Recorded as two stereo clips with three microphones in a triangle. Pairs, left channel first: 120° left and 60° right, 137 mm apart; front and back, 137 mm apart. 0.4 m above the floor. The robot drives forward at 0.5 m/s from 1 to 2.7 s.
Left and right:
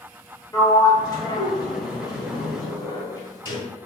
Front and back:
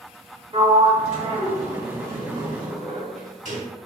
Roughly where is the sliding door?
Behind.